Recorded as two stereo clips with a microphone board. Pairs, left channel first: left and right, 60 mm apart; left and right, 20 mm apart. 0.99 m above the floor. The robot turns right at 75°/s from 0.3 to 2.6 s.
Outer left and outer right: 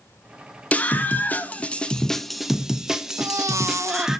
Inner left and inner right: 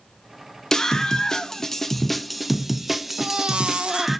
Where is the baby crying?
55° right (ahead or behind), 0.6 m.